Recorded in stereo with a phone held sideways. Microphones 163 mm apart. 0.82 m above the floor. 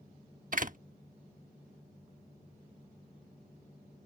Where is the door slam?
55° right (ahead or behind).